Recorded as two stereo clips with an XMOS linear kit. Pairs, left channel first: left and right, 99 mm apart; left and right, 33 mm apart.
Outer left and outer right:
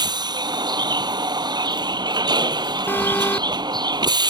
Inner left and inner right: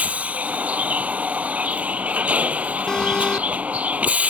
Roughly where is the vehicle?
Right.